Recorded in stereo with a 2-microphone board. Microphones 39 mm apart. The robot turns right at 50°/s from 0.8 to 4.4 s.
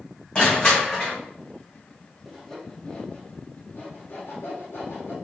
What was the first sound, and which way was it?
Crushing, 20° left (ahead or behind).